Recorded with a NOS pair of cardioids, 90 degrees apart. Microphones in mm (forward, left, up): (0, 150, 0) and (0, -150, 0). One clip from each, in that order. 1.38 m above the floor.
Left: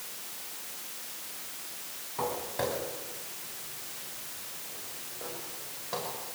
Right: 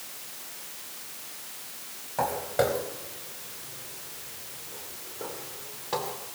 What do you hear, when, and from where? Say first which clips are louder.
2.2 s footsteps: right 6 dB; 55° right, 5 m; by 6.2 s 75° right, 9 m